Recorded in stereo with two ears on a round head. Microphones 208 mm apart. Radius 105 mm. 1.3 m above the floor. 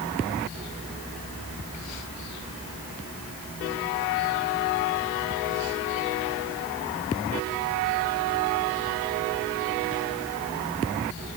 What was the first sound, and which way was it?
Only background noise.